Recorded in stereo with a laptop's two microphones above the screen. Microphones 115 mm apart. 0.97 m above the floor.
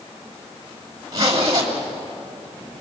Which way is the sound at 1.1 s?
35° right (ahead or behind).